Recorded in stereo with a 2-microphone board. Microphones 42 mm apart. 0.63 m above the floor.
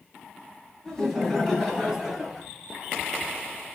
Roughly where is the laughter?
Centre.